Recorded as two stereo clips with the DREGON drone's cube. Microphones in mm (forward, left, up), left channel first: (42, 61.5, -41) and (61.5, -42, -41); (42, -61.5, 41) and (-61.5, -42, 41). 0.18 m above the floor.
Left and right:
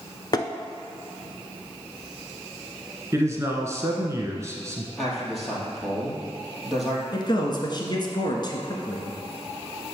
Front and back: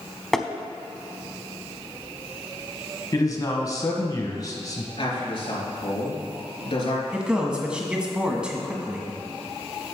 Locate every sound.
0.3 s tapping: 75° left, 0.6 m
3.1 s a man speaking: 40° right, 1.2 m
5.0 s a man speaking: 10° left, 3 m
7.1 s a man speaking: 90° left, 1.5 m